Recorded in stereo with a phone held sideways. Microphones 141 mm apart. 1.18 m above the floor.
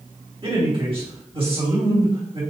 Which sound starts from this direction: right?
A man speaking, at 0.4 s.